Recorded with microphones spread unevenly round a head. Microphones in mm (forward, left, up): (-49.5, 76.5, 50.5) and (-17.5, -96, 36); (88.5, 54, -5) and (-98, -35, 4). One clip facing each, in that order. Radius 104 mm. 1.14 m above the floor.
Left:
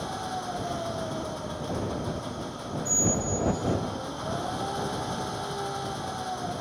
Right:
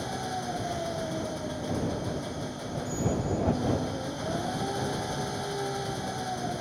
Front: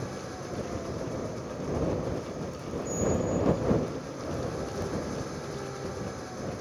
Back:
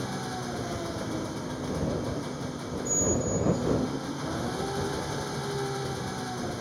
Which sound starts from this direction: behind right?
An engine running, at 0.0 s.